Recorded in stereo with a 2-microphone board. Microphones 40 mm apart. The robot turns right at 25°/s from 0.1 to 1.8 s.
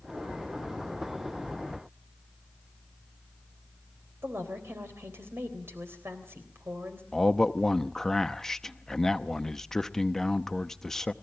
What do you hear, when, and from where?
4.2 s a woman speaking: 75° right (ahead or behind), 3.5 m
7.1 s a man speaking: 15° left (ahead or behind), 0.7 m